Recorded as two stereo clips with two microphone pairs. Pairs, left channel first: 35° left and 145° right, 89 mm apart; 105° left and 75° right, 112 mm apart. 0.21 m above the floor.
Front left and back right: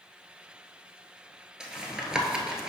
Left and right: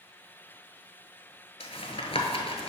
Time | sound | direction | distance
1.6 | tapping | 135° left | 0.9 m